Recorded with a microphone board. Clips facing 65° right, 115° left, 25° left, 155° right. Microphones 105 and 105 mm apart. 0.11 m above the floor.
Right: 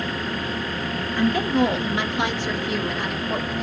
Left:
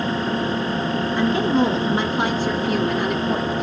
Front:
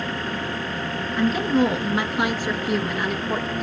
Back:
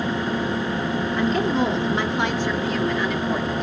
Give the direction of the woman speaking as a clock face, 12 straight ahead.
9 o'clock.